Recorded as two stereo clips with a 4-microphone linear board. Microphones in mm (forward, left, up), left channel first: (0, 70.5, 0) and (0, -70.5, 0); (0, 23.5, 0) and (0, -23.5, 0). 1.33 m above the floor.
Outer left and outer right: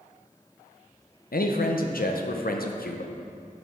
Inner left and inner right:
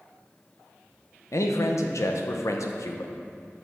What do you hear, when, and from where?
1.3 s a man speaking: 85° left, 0.7 m